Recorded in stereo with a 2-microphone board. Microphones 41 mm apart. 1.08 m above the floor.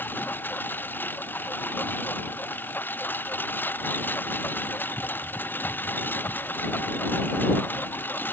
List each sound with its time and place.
0.0 s a lawn mower: 55° left (ahead or behind)